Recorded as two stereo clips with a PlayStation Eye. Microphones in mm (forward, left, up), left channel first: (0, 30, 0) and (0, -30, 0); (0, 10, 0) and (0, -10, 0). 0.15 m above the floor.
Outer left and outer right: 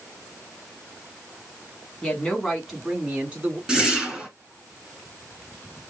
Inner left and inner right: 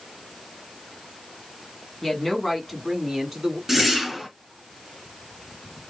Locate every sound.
2.0 s a woman speaking: 20° left (ahead or behind), 1.7 m; by 3.6 s 25° right (ahead or behind), 1.9 m
3.7 s a whoosh: 10° right (ahead or behind), 1.6 m